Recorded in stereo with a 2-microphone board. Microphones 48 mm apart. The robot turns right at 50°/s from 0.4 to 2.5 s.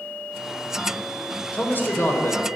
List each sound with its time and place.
1.5 s a man speaking: 40° left, 1.5 m; by 2.5 s 85° left, 1.5 m